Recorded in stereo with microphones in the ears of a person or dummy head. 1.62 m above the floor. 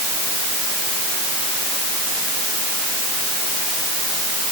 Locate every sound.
Only background noise.